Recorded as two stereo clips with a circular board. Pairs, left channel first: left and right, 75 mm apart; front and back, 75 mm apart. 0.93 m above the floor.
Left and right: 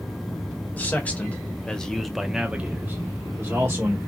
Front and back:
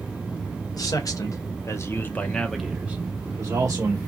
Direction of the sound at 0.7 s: 25° left.